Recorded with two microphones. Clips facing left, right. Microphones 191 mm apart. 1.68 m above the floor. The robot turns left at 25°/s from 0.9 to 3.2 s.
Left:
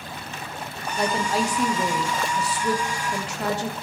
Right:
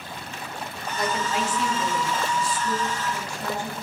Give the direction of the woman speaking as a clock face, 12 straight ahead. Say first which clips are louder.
Left 3 dB; 7 o'clock.